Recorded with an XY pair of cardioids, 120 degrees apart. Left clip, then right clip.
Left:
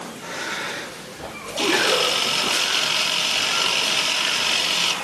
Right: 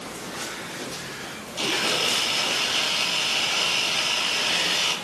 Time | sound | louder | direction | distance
1.6 | a camera shutter | left 5 dB | 30° left | 3 m